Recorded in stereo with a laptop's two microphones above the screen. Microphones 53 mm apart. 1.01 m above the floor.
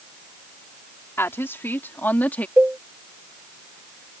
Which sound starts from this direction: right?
A cowbell, at 2.6 s.